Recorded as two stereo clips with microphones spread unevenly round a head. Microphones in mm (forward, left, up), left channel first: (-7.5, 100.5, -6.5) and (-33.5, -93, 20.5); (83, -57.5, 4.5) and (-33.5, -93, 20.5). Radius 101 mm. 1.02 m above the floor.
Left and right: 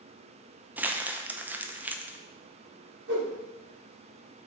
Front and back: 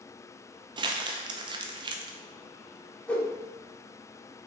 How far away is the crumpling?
About 0.5 m.